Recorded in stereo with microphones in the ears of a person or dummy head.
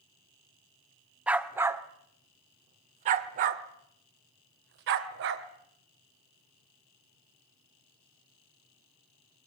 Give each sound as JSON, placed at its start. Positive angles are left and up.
{"t": 1.3, "sound": "a dog barking", "side_deg": -5, "distance_m": 1.4}